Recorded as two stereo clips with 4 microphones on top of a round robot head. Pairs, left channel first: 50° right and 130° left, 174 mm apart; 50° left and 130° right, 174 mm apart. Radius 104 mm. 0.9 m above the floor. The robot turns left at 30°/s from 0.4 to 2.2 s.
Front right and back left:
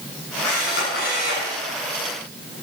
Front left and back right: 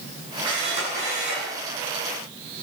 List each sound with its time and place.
0.4 s a camera shutter: 65° right, 7.5 m; by 1.5 s 95° right, 7.5 m